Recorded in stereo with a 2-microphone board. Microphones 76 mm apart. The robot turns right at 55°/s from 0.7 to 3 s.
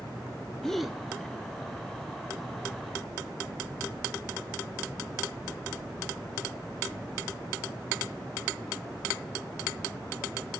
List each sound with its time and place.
0.6 s a gasp: 5° left (ahead or behind), 0.5 m; by 1.0 s 10° right (ahead or behind), 0.5 m